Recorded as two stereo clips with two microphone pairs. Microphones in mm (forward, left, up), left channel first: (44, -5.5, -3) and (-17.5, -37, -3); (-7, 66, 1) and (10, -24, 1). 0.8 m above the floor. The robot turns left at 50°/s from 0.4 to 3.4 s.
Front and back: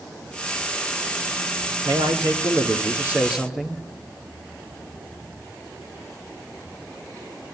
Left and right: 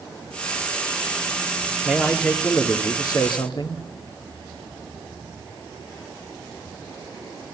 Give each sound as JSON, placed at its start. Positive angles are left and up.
{"t": 1.9, "sound": "a man speaking", "azimuth_deg": -155, "distance_m": 2.0}